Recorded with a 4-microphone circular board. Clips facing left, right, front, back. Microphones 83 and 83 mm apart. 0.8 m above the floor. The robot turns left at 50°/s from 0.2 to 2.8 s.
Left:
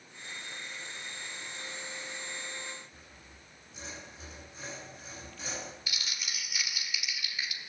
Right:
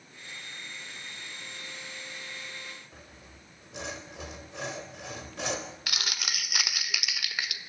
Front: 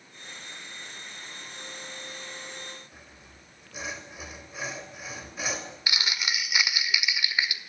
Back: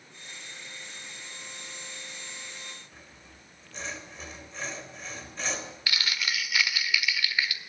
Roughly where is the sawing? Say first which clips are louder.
Right 3 dB, front 1 dB; right.